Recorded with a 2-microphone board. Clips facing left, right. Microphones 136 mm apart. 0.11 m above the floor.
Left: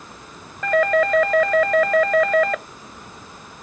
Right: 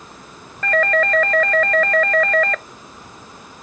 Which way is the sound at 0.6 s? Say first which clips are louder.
Left 1 dB; 10° left (ahead or behind).